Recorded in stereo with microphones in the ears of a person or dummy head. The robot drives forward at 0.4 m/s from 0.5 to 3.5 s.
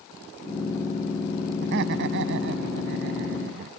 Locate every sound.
1.6 s laughter: 65° right (ahead or behind); by 3.7 s 60° right (ahead or behind)